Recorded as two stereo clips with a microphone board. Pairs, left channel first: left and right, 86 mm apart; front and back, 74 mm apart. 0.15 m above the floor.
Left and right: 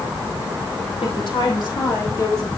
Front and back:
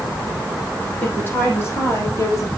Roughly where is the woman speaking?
Ahead left.